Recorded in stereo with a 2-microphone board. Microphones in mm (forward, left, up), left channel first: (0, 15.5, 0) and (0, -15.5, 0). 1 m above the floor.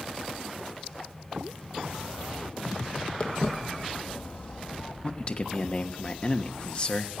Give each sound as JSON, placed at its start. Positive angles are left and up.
{"t": 3.2, "sound": "footsteps", "side_deg": 40, "distance_m": 2.5}
{"t": 5.0, "sound": "a man speaking", "side_deg": 35, "distance_m": 1.1}